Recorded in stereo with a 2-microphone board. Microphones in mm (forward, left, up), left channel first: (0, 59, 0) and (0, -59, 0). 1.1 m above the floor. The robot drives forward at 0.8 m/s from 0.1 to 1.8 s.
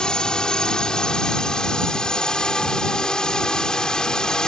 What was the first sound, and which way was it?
A drone, 5° left (ahead or behind).